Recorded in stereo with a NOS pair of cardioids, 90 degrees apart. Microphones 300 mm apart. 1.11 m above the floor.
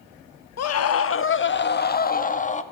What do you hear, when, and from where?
0.6 s a scream: 60° left, 1.4 m; by 2.6 s 25° left, 2.5 m